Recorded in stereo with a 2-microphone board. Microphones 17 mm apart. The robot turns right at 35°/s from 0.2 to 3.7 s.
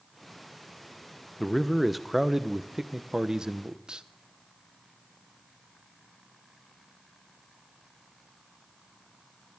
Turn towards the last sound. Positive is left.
turn(degrees=-110)